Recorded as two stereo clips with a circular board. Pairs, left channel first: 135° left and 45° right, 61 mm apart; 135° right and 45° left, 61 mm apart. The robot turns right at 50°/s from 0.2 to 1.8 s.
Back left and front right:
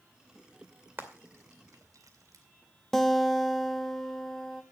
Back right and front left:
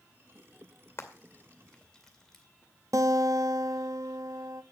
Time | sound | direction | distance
1.0 | frying | 95° right | 2.5 m
2.9 | a guitar | 50° left | 0.9 m